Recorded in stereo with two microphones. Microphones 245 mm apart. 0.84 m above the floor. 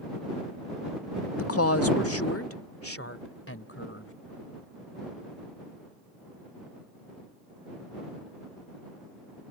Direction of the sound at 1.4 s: 65° left (ahead or behind).